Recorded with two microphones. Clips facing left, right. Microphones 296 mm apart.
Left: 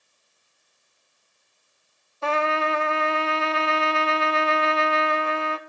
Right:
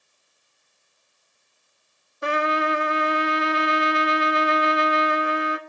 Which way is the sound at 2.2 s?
20° right (ahead or behind).